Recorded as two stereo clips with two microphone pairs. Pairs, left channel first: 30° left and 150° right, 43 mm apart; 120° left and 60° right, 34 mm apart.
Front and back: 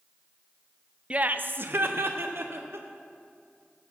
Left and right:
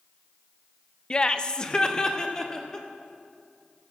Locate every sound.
1.1 s laughter: 165° left, 0.5 m; by 2.9 s 170° right, 2 m